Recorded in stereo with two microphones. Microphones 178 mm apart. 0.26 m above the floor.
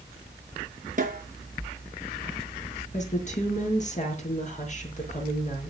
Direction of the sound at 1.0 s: 50° right (ahead or behind).